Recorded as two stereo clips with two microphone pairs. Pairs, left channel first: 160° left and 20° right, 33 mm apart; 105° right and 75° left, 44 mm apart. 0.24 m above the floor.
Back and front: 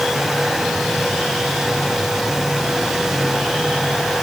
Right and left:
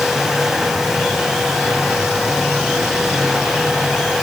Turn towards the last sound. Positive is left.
No sound to turn to.